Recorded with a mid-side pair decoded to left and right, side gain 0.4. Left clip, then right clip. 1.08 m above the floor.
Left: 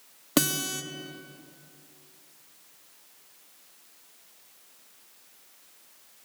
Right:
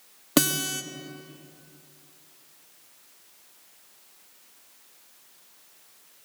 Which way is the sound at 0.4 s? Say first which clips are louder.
Right 2 dB; 15° right.